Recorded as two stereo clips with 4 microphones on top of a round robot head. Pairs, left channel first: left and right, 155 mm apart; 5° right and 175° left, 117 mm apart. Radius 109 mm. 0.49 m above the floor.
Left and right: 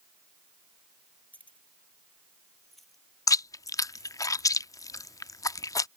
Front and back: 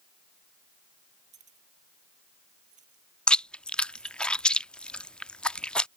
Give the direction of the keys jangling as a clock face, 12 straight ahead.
6 o'clock.